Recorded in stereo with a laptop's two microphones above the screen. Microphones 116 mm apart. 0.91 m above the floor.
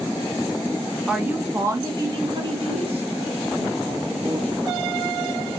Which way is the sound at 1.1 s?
5° right (ahead or behind).